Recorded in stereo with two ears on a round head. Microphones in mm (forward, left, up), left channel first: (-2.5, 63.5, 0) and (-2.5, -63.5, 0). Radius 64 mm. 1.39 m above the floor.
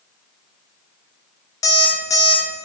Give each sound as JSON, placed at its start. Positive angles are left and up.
{"t": 1.6, "sound": "an alarm clock", "side_deg": 25, "distance_m": 0.6}